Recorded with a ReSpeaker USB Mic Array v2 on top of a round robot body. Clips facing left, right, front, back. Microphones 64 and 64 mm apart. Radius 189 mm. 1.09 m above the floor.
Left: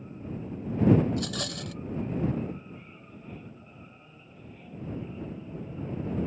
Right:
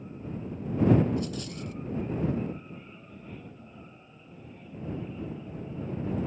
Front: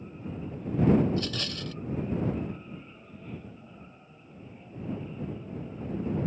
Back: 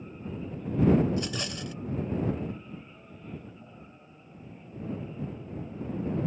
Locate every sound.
1.1 s a rattle: 105° left